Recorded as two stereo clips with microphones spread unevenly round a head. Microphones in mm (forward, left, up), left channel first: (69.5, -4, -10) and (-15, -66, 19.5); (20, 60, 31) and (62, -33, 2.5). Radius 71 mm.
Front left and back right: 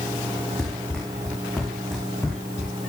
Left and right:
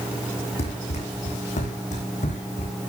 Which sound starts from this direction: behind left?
Running footsteps, at 0.6 s.